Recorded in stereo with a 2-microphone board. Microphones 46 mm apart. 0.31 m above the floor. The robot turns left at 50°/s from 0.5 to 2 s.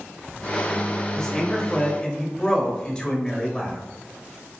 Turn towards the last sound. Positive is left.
turn(degrees=20)  # may be behind; listen again after turning